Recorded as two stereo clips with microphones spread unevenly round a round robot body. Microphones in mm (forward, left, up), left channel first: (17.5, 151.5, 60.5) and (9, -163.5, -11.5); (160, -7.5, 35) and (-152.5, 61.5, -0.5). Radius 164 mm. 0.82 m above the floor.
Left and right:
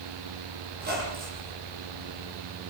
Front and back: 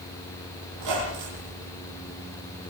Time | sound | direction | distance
0.7 | a squeak | 155° right | 8.5 m